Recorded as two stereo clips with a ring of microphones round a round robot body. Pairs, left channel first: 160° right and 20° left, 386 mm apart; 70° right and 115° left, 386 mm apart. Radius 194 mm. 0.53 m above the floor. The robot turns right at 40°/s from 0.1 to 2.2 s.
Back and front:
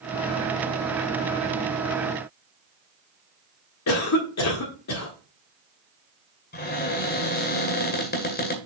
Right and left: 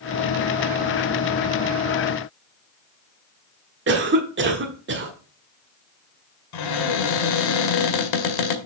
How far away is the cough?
About 1.6 m.